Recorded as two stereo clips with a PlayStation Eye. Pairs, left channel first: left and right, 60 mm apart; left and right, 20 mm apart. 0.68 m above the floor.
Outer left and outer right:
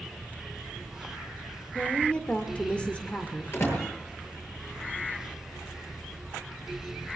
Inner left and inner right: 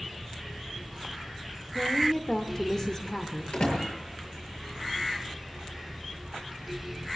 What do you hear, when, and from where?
1.8 s a woman speaking: 20° left (ahead or behind), 1.9 m
3.5 s a door slam: 45° left (ahead or behind), 9.5 m